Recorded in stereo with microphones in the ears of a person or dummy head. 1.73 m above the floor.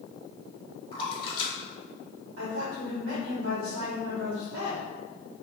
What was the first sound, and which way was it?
A splash, 30° left (ahead or behind).